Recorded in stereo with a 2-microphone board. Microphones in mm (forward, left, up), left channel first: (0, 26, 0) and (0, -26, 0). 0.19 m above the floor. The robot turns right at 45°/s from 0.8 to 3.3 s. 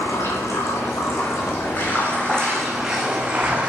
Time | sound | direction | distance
0.0 | running water | 95° left | 2 m